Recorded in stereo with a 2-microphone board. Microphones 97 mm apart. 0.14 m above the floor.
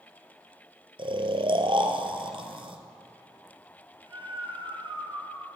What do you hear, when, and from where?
1.0 s snoring: 60° right (ahead or behind), 1.0 m